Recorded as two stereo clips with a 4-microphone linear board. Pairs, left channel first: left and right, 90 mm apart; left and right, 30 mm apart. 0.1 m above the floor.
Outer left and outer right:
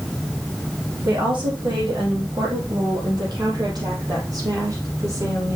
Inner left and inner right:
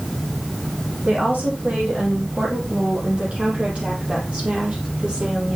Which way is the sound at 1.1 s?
70° right (ahead or behind).